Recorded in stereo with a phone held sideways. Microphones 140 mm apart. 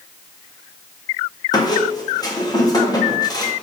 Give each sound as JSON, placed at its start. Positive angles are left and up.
{"t": 1.5, "sound": "a squeak", "side_deg": 30, "distance_m": 0.7}